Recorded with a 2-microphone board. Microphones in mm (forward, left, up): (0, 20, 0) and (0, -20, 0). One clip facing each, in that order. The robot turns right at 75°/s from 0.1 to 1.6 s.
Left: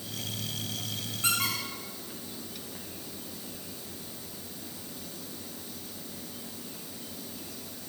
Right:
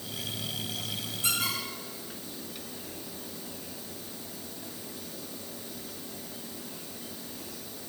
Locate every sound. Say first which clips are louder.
1.2 s a squeak: left 2 dB; 40° left (ahead or behind), 8 m; by 2.8 s 65° left (ahead or behind), 8 m